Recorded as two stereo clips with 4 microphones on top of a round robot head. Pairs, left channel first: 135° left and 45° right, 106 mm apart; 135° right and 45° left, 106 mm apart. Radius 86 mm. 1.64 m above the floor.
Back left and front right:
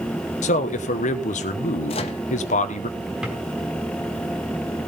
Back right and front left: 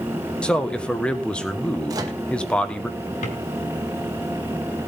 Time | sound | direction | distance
0.4 | a man speaking | 145° left | 1.3 m
1.9 | a microwave | 105° left | 1.0 m
3.2 | a drawer | 125° right | 4 m